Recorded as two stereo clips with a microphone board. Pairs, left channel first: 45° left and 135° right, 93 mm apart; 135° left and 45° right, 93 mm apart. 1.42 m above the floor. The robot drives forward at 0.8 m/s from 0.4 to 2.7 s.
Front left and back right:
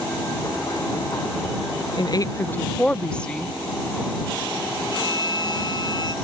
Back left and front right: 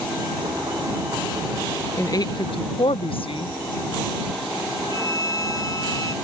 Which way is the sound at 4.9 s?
85° left.